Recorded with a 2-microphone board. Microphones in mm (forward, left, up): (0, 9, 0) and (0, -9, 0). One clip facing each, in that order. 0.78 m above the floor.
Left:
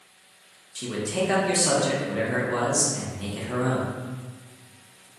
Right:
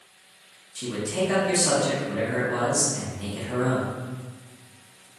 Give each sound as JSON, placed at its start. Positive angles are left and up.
{"t": 0.8, "sound": "a man speaking", "side_deg": 25, "distance_m": 0.7}